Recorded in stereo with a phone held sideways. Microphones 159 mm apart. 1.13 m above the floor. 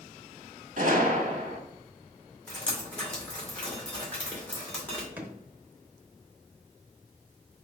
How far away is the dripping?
About 2.5 m.